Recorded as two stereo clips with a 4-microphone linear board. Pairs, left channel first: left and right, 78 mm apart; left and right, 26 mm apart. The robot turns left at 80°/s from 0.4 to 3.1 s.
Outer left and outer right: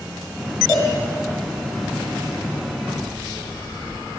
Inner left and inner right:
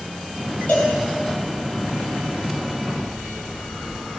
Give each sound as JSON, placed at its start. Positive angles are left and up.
{"t": 0.7, "sound": "a cowbell", "side_deg": 50, "distance_m": 2.0}